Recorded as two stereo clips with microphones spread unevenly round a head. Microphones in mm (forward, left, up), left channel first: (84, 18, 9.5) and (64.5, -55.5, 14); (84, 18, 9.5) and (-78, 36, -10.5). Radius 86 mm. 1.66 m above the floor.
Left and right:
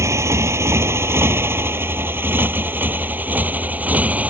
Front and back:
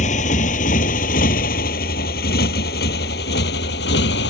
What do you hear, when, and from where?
0.0 s a motorcycle: 55° right; by 4.3 s 35° right